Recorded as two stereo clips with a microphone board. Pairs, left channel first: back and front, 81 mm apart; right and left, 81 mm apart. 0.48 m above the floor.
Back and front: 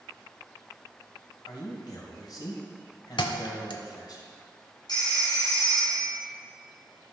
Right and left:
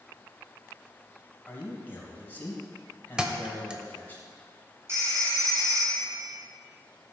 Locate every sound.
1.5 s a man speaking: 150° right, 2.5 m
3.2 s a thud: 170° left, 0.8 m
4.9 s a phone ringing: 145° left, 4 m